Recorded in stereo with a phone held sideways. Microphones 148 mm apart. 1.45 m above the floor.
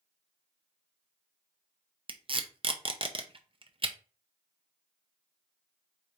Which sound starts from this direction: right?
Tape being pulled, at 2.1 s.